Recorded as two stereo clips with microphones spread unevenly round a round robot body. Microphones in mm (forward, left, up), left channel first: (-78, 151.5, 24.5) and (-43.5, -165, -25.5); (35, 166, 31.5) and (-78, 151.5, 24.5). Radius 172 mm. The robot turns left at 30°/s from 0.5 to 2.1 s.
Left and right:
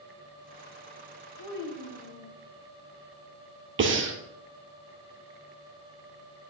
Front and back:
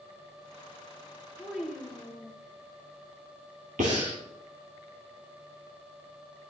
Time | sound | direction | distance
1.4 | a child speaking | 110° left | 1.6 m
3.8 | breathing | 140° right | 1.9 m